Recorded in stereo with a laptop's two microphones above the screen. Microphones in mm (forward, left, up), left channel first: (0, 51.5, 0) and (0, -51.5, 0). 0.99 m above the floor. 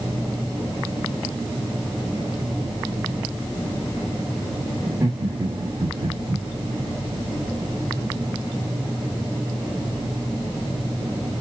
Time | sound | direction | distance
4.8 | laughter | 35° right (ahead or behind) | 1.6 m